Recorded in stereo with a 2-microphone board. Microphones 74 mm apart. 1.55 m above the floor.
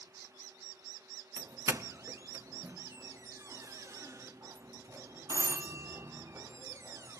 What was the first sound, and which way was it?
A doorbell, 45° right (ahead or behind).